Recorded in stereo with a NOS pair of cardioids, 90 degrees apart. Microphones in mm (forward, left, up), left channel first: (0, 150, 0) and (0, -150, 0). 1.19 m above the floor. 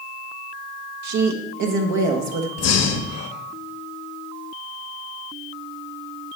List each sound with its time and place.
1.0 s a woman speaking: 70° right, 1.3 m
2.6 s breathing: 55° left, 1.1 m